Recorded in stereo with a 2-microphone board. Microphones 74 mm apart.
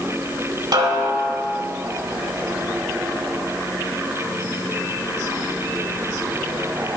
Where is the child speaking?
No child speaking in this recording.